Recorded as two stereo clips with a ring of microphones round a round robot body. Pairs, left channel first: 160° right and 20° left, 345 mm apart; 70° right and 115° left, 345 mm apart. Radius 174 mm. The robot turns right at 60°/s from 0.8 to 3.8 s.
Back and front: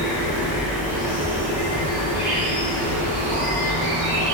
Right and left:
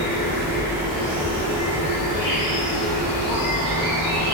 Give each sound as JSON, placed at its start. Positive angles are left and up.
{"t": 0.0, "sound": "an insect", "azimuth_deg": 175, "distance_m": 1.3}